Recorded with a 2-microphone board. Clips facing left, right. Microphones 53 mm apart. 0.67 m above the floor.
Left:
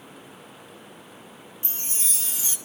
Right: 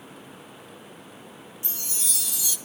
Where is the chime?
35° left (ahead or behind), 1.8 m.